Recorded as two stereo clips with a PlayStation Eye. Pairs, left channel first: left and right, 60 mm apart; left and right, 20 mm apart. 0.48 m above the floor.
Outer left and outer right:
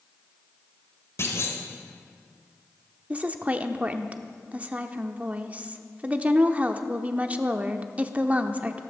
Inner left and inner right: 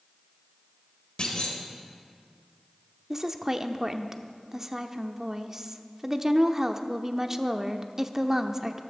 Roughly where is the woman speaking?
Right.